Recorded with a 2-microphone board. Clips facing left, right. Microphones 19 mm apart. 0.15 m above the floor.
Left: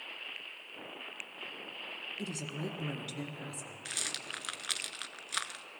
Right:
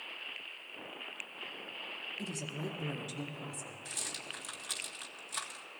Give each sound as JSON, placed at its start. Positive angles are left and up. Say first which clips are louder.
{"t": 2.2, "sound": "a woman speaking", "louder": "left 2 dB", "side_deg": 30, "distance_m": 1.2}
{"t": 3.9, "sound": "a rattle", "louder": "left 4 dB", "side_deg": 45, "distance_m": 0.6}